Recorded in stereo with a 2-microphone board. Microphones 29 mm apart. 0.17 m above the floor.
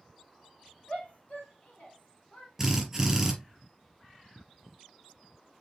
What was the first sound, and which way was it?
A shout, 50° left (ahead or behind).